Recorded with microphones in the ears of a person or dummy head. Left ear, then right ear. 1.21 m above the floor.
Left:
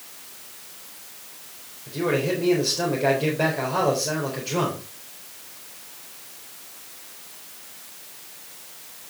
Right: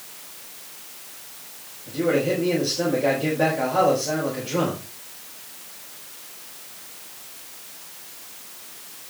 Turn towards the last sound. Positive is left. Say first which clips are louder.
# right 2 dB
turn(degrees=40)  # may be behind; listen again after turning